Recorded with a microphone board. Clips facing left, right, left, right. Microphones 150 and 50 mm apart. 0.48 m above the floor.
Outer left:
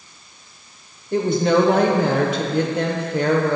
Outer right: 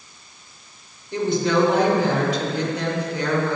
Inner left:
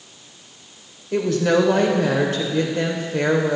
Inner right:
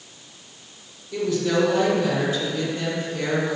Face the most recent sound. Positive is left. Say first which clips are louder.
# outer left 3 dB, inner left 4 dB
turn(degrees=55)  # may be behind; listen again after turning